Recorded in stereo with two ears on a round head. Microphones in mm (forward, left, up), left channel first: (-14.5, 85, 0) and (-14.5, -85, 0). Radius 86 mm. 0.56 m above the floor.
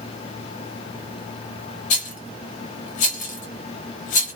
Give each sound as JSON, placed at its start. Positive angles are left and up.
{"t": 1.9, "sound": "a rattle", "side_deg": 45, "distance_m": 0.9}